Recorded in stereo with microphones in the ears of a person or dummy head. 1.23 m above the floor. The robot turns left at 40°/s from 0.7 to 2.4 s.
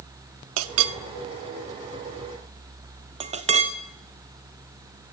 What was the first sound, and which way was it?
A clink, 75° right (ahead or behind).